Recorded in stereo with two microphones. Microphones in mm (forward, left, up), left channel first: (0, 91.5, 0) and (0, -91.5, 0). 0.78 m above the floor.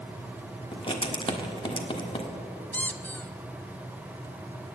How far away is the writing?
About 1.6 m.